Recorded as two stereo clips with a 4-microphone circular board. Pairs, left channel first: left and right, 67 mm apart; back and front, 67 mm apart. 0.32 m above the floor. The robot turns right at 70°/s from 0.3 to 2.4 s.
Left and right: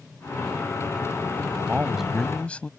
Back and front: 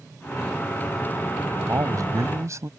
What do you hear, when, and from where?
1.6 s a man speaking: 30° right; by 2.7 s 25° left